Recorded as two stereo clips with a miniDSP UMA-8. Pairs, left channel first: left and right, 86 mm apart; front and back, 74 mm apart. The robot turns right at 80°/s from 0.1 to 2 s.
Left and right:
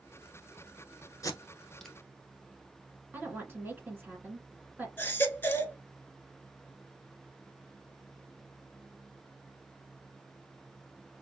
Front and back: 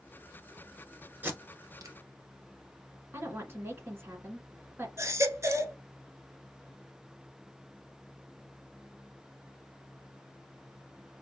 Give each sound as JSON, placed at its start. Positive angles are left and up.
{"t": 1.2, "sound": "tape being pulled", "azimuth_deg": 125, "distance_m": 0.9}
{"t": 3.1, "sound": "a woman speaking", "azimuth_deg": -145, "distance_m": 1.4}
{"t": 5.0, "sound": "a baby crying", "azimuth_deg": 150, "distance_m": 0.6}